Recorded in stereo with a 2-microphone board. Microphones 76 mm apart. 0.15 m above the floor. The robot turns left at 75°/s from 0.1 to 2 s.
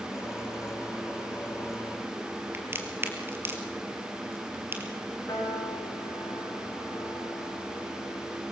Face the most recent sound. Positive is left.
turn(degrees=50)  # may be behind; listen again after turning